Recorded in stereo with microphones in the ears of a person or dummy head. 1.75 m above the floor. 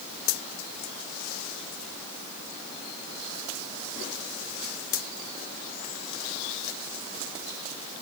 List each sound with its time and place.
Only background noise.